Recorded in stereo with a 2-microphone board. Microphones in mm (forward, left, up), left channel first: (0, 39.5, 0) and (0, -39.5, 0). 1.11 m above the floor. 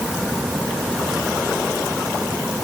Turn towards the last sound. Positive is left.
No sound to turn to.